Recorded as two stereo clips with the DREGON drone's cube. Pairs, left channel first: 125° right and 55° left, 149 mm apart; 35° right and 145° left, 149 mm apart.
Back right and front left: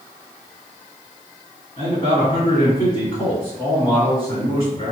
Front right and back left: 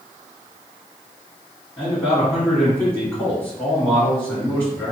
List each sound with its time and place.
1.8 s a man speaking: 100° right, 1.5 m